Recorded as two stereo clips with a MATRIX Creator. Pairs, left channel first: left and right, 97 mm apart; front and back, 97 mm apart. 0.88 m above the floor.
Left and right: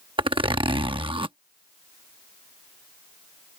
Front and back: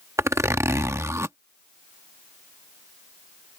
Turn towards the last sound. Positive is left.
turn(degrees=-120)